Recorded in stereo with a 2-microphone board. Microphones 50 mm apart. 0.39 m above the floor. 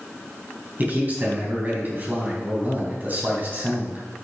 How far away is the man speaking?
About 3.5 m.